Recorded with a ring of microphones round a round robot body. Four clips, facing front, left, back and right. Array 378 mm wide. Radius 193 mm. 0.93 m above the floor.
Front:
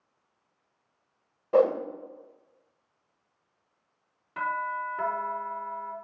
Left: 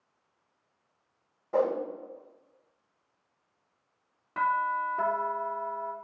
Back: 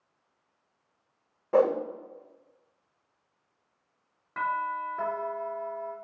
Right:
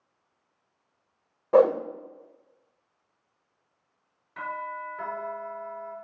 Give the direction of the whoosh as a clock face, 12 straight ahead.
3 o'clock.